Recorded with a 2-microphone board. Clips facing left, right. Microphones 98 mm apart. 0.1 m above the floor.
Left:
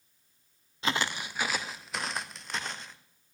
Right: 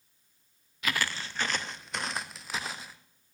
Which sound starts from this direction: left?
Footsteps, at 0.8 s.